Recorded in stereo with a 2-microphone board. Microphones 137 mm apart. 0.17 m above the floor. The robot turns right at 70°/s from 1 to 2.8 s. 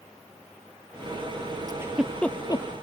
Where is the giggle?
30° right (ahead or behind); by 2.6 s 35° left (ahead or behind).